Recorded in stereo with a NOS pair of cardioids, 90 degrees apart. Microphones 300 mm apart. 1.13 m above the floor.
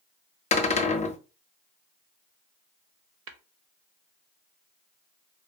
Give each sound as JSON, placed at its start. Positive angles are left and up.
{"t": 0.5, "sound": "a cupboard door", "azimuth_deg": 25, "distance_m": 0.6}
{"t": 3.3, "sound": "tapping", "azimuth_deg": -55, "distance_m": 0.7}